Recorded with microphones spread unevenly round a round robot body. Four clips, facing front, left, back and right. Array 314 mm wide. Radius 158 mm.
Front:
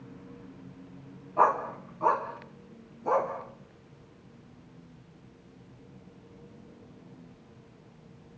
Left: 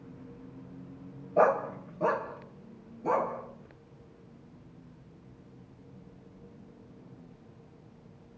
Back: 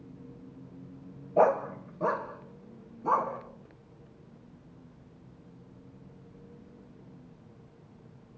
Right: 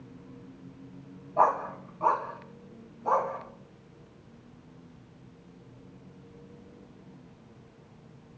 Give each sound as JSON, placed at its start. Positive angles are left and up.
{"t": 1.4, "sound": "a dog barking", "azimuth_deg": 145, "distance_m": 1.2}